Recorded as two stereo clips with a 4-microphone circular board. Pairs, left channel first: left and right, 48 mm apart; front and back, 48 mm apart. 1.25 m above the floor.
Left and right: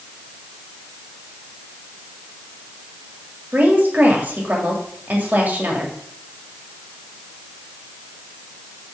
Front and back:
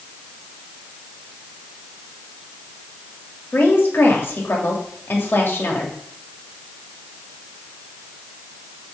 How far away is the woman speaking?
About 2.5 m.